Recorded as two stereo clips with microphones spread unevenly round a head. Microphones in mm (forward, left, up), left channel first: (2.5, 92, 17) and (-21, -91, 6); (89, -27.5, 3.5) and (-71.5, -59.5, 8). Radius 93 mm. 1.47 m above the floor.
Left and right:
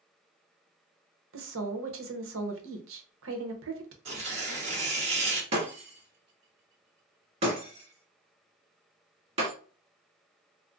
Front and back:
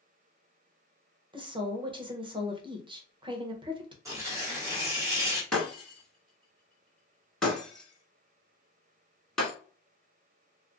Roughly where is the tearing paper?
Behind right.